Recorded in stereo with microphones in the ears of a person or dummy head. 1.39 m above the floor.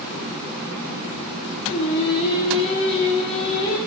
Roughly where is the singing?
Left.